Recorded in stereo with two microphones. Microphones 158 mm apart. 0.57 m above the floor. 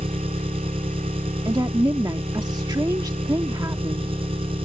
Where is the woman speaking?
25° right (ahead or behind).